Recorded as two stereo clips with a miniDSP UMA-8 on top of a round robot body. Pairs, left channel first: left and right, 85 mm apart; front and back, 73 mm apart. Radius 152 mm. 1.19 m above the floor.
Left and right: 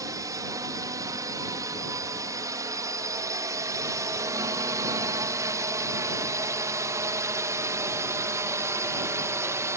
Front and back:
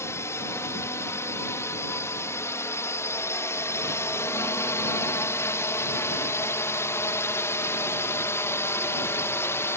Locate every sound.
0.0 s a drone: 45° right